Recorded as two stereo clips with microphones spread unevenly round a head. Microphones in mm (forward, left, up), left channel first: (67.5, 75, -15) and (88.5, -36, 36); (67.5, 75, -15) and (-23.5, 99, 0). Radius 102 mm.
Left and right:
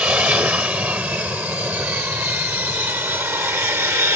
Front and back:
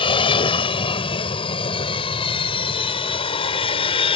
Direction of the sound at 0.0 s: Straight ahead.